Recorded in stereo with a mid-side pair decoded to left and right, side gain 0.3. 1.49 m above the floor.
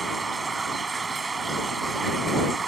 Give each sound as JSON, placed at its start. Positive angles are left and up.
{"t": 0.0, "sound": "running water", "azimuth_deg": -45}